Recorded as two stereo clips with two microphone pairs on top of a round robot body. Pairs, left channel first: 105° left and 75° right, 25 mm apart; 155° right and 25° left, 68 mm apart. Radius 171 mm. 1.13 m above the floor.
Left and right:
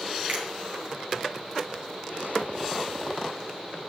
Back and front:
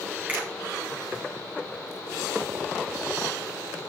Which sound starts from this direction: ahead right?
A finger snap, at 0.3 s.